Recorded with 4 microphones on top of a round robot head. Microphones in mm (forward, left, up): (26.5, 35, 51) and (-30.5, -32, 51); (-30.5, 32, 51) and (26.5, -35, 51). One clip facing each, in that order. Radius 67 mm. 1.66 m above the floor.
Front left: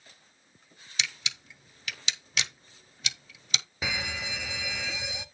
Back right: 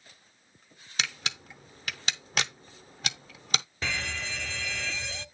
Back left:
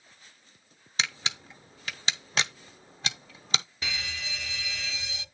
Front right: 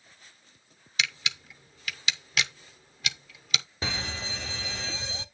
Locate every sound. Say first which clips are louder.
1.0 s a camera shutter: back right 3 dB, even; 175° right, 0.6 m
3.8 s a fire alarm: front left 4 dB, front right 3 dB; 25° right, 1.1 m